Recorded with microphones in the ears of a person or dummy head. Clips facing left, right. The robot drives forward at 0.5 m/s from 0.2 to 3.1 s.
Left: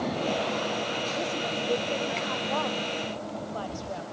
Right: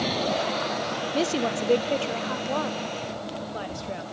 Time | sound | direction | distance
1.1 | a woman speaking | 85° right | 0.5 m